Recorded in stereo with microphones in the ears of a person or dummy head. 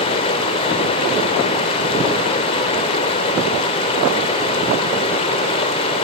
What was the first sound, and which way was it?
Running water, 30° left (ahead or behind).